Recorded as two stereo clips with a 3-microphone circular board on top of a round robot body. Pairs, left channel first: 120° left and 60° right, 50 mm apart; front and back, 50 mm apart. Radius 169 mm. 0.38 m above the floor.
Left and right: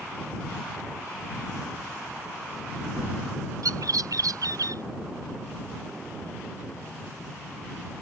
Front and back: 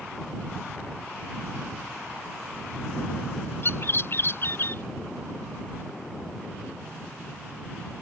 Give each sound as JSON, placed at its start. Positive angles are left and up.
{"t": 3.6, "sound": "a bird", "azimuth_deg": -45}